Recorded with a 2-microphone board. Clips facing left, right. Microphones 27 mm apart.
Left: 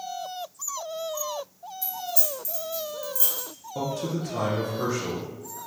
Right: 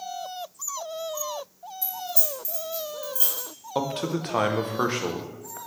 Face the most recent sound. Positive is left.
turn(degrees=-65)  # may be behind; listen again after turning